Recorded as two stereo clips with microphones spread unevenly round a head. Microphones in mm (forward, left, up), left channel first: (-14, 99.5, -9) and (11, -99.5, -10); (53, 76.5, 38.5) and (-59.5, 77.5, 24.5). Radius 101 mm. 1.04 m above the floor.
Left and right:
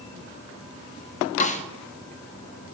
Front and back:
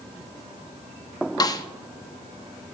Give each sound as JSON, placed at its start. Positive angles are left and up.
{"t": 1.4, "sound": "a snare drum", "azimuth_deg": 45, "distance_m": 0.6}